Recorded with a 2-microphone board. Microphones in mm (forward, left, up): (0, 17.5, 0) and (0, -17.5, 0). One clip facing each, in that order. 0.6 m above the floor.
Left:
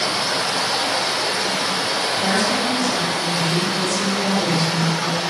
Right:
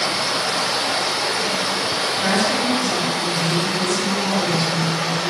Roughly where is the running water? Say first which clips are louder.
Even; left.